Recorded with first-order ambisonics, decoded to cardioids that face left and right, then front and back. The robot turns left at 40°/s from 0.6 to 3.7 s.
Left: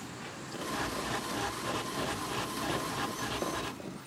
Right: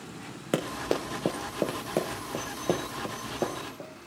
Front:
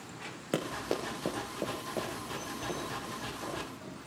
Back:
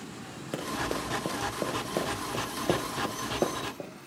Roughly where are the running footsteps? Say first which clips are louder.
Right 6 dB, back 2 dB; right.